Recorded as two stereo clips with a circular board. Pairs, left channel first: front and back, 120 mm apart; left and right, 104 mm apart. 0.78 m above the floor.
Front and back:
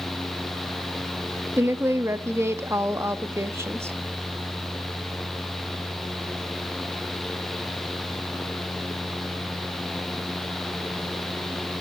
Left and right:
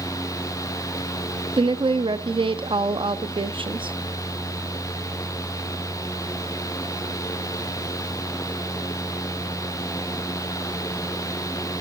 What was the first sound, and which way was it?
A woman speaking, 115° right.